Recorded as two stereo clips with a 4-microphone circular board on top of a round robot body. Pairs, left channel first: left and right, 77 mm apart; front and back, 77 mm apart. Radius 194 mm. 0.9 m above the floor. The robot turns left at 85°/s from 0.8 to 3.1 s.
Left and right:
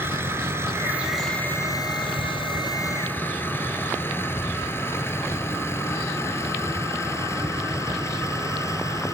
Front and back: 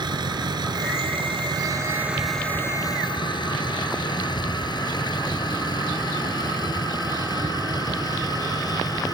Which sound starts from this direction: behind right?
A vehicle, at 0.0 s.